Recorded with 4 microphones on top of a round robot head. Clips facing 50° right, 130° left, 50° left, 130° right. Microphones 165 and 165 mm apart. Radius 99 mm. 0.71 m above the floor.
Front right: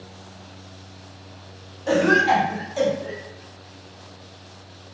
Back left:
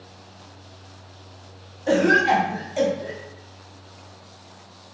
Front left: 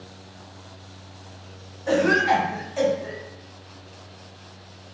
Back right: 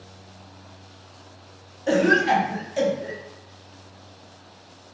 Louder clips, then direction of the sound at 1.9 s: Even, back right 1 dB; 170° right.